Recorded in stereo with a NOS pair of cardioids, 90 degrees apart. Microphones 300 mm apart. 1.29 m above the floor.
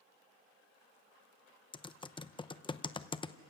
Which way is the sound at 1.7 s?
15° left.